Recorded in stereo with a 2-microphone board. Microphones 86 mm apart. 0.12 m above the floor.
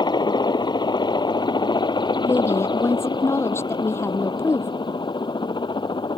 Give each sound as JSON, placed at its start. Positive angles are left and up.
{"t": 0.0, "sound": "a helicopter", "side_deg": 55}
{"t": 2.2, "sound": "a woman speaking", "side_deg": 30}